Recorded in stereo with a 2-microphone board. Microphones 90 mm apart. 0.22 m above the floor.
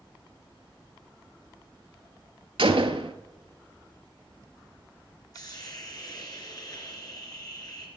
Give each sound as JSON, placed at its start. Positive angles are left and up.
{"t": 2.6, "sound": "a gunshot", "side_deg": -75, "distance_m": 1.1}
{"t": 5.3, "sound": "a hiss", "side_deg": 45, "distance_m": 2.5}